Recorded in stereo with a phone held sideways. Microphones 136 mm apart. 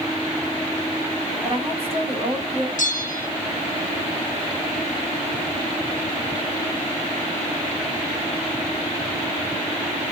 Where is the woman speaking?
45° right (ahead or behind), 1.9 m.